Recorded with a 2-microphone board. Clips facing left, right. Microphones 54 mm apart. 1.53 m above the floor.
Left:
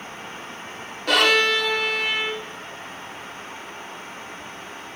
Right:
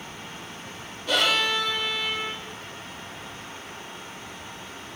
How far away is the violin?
About 3.5 m.